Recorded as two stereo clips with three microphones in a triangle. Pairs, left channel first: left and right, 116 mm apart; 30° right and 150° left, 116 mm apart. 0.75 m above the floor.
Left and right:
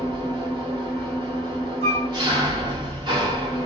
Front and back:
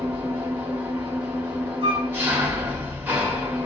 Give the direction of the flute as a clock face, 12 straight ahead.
8 o'clock.